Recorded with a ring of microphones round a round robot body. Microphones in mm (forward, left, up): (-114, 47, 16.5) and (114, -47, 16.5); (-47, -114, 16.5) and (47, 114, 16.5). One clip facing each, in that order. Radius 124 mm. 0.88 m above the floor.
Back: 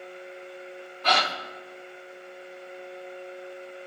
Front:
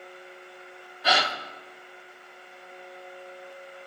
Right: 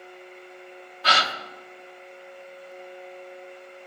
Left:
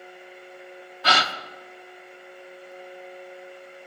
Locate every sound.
1.0 s a gasp: 60° left, 0.6 m